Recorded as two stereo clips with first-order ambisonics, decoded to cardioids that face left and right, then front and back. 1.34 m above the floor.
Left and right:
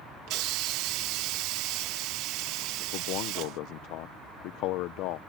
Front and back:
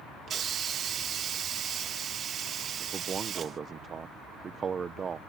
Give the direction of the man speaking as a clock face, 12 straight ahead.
8 o'clock.